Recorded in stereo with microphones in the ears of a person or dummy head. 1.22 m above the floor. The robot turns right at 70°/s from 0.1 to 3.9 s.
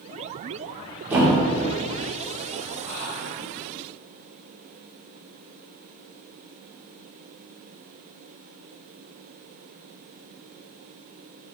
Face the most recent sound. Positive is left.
turn(degrees=-145)